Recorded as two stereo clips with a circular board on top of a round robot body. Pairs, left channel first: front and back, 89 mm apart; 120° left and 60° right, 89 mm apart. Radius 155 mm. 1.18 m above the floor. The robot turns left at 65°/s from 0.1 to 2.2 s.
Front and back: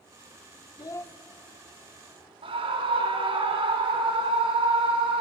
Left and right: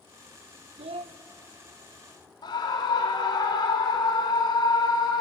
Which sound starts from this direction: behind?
A scream, at 2.4 s.